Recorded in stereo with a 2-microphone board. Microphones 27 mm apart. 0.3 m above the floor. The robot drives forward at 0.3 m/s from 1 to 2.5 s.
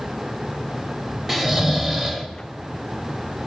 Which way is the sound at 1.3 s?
10° right (ahead or behind).